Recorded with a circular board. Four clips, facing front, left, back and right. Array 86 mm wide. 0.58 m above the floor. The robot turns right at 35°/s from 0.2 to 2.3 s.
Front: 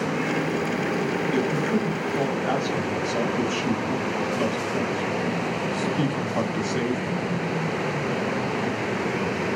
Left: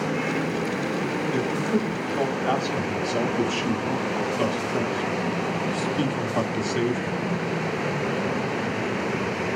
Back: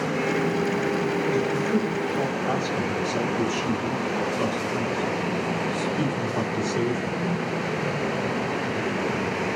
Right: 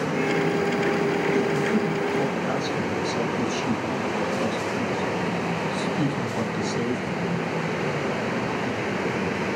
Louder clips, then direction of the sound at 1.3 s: Right 2 dB, even; 35° left.